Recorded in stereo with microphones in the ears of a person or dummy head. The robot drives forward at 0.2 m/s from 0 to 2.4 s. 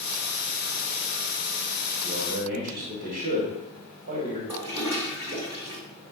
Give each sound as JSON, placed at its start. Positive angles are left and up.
{"t": 2.0, "sound": "a man speaking", "side_deg": -45, "distance_m": 1.1}
{"t": 4.5, "sound": "a toilet flushing", "side_deg": -25, "distance_m": 2.0}